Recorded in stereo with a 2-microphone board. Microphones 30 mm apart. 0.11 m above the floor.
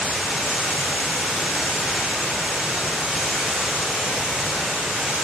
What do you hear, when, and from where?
0.0 s running water: 40° right (ahead or behind), 9.5 m